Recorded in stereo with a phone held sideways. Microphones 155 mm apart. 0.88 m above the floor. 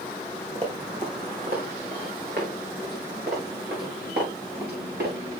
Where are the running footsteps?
40° right (ahead or behind), 3 m; by 5.1 s 80° right, 6.5 m.